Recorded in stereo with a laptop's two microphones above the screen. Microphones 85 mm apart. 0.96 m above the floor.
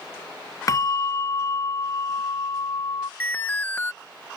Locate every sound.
0.7 s a bell: 40° left (ahead or behind)
3.2 s an alarm: 20° left (ahead or behind)